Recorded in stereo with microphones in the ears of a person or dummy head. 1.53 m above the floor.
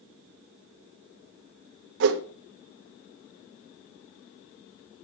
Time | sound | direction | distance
2.0 | a whoosh | 65° right (ahead or behind) | 1.2 m